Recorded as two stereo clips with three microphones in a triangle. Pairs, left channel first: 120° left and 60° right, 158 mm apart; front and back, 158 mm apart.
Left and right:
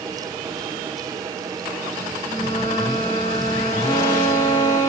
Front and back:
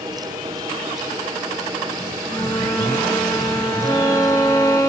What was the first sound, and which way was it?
A flute, 70° left.